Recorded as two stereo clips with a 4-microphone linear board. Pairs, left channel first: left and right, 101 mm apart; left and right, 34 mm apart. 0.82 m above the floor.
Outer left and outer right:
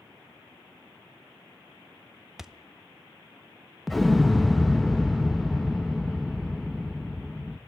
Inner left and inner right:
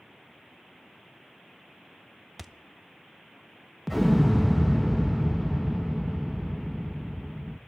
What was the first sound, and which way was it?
A thud, 5° right (ahead or behind).